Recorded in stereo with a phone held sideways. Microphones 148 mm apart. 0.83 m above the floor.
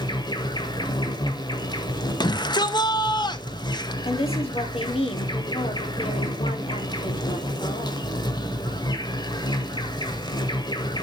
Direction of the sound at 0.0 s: 30° left (ahead or behind).